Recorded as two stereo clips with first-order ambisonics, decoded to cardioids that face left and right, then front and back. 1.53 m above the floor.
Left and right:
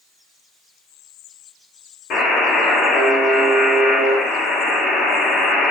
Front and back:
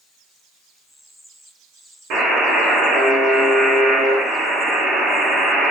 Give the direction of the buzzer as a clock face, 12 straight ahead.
7 o'clock.